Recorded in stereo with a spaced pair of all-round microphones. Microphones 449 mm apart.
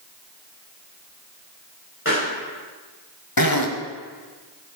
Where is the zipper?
50° left (ahead or behind), 1.4 m.